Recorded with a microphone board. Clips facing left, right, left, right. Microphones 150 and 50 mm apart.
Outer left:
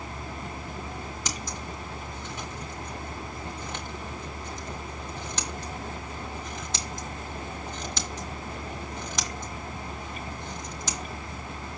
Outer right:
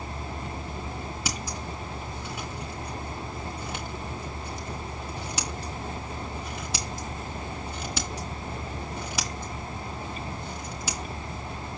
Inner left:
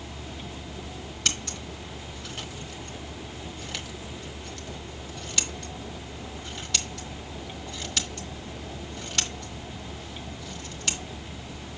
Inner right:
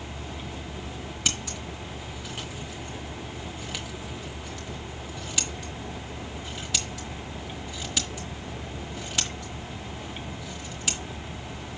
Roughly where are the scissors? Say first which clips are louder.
Outer right 2 dB, even; centre.